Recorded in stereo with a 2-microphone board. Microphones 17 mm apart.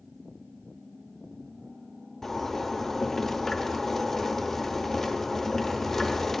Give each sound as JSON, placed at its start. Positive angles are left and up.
{"t": 2.2, "sound": "a zipper", "side_deg": 20, "distance_m": 1.0}